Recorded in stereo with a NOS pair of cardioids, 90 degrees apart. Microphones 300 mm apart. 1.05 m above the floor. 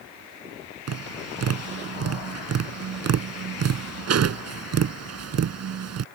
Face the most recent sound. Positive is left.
turn(degrees=-55)